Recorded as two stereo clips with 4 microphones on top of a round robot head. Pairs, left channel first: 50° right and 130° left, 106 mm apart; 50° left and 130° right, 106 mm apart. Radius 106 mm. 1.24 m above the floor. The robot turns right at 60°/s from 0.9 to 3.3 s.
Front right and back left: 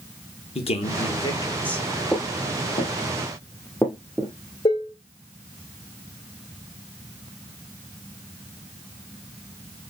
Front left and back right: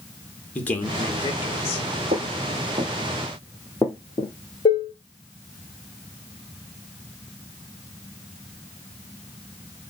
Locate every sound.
0.6 s a man speaking: 25° right, 1.6 m; by 1.9 s 35° left, 1.6 m
2.1 s footsteps: 130° right, 1.9 m; by 4.3 s 50° left, 1.3 m
4.7 s dishes clattering: straight ahead, 0.9 m